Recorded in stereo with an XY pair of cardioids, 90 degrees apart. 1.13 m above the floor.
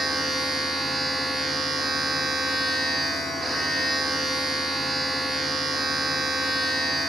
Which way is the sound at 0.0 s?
35° right.